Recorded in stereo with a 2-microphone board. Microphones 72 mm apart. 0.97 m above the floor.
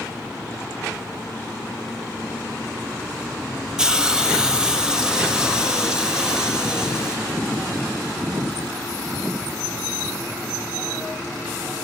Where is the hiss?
10° right (ahead or behind), 0.5 m.